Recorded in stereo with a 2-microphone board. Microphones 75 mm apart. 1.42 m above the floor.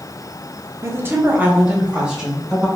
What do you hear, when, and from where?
0.8 s a woman speaking: 40° right (ahead or behind), 0.8 m; by 2.7 s 5° right (ahead or behind), 1.6 m